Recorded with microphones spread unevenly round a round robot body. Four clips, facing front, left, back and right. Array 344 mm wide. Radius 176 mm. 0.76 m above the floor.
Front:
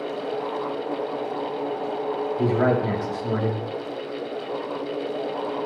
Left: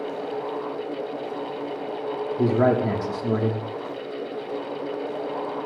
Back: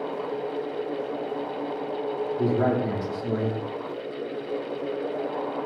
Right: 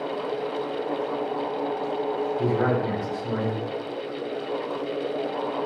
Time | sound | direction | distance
2.4 | a man speaking | 70° left | 1.5 m